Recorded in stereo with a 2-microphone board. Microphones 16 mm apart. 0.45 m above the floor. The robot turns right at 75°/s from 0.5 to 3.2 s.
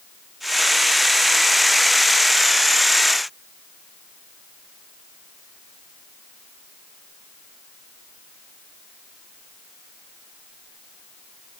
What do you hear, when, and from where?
Only background noise.